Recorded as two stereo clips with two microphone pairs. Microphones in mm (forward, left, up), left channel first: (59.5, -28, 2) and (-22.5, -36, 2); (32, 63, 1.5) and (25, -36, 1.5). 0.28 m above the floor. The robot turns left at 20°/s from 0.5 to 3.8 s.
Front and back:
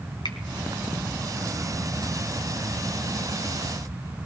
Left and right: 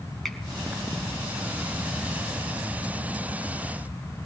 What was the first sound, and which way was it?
A finger snap, straight ahead.